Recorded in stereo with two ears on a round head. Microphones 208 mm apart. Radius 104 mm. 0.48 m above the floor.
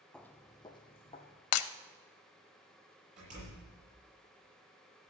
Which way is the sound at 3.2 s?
35° right (ahead or behind).